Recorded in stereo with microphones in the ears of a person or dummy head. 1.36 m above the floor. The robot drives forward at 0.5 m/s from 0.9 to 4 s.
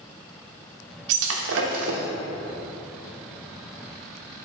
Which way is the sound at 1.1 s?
65° right (ahead or behind).